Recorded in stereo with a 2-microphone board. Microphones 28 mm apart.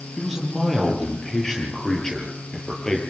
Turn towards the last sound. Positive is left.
turn(degrees=25)  # may be behind; listen again after turning